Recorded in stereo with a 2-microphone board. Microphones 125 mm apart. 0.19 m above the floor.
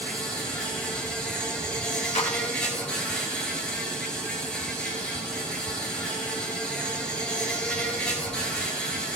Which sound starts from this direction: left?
A clap, at 2.1 s.